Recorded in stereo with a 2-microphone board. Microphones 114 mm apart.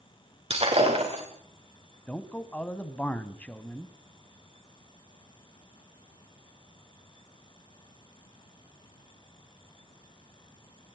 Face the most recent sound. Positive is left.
turn(degrees=10)  # may be behind; listen again after turning